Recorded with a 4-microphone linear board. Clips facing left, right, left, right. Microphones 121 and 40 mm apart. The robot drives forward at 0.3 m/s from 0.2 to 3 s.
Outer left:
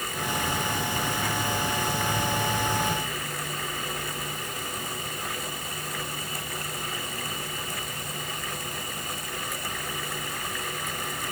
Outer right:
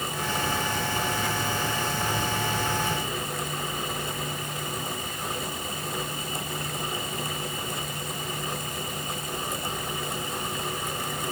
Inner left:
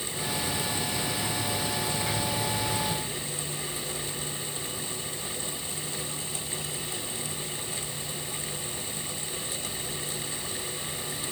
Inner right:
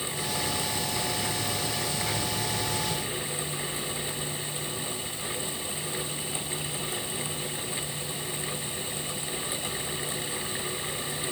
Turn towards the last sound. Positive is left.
No sound to turn to.